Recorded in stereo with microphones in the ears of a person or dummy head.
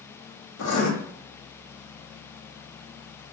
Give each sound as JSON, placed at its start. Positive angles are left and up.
{"t": 0.6, "sound": "writing", "side_deg": 80, "distance_m": 0.7}